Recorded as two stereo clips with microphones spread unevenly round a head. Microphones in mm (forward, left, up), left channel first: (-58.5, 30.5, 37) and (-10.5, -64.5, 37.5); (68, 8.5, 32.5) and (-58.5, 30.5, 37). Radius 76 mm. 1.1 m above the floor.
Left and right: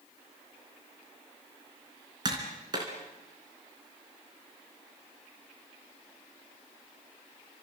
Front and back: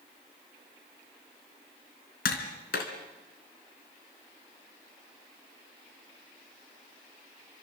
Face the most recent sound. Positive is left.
turn(degrees=0)